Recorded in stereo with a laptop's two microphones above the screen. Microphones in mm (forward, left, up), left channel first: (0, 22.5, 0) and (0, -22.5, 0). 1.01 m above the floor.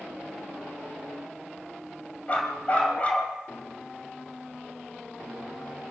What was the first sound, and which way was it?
A dog barking, 30° left (ahead or behind).